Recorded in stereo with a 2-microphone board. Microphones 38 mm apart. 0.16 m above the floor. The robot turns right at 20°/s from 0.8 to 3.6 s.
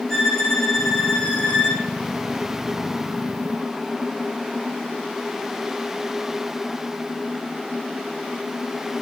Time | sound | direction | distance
0.1 | a violin | 10° left (ahead or behind) | 6 m